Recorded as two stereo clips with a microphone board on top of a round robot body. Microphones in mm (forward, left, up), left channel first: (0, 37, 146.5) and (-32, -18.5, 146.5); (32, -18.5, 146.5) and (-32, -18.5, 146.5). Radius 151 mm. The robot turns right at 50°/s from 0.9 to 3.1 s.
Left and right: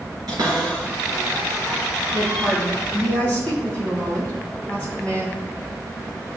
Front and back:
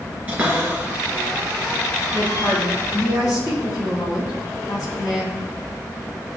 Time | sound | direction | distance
0.3 | a cupboard door | 115° right | 3 m
2.1 | a woman speaking | 60° right | 3.5 m